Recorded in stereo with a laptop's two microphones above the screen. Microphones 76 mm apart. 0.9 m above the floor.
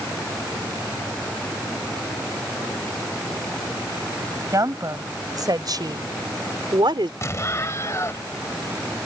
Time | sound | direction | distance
4.5 | a woman speaking | 45° right (ahead or behind) | ?
7.2 | an explosion | 40° left (ahead or behind) | ?